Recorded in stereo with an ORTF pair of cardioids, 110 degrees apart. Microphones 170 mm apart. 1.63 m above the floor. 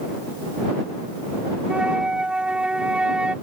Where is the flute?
5° right.